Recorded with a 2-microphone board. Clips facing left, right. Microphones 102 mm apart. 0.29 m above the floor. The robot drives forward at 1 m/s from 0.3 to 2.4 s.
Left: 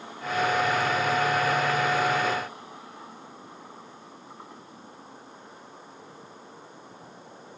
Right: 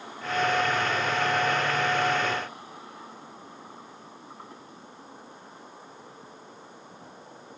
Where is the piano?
No piano in this recording.